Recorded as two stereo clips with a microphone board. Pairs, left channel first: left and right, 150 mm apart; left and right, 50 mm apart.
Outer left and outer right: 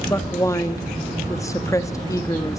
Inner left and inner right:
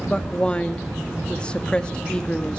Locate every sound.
0.1 s a woman speaking: 20° left (ahead or behind), 1.5 m